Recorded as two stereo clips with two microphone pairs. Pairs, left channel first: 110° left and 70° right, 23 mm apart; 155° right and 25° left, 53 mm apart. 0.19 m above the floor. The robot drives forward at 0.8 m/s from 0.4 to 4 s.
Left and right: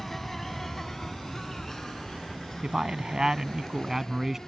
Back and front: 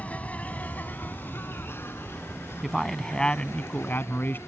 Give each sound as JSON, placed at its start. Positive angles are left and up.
{"t": 0.0, "sound": "an insect", "azimuth_deg": -175}
{"t": 2.6, "sound": "a man speaking", "azimuth_deg": -60}